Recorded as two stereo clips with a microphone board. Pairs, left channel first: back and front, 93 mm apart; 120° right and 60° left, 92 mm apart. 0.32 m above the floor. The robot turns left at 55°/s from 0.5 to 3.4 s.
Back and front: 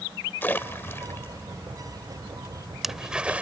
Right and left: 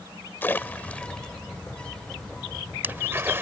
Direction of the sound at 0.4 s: 150° right.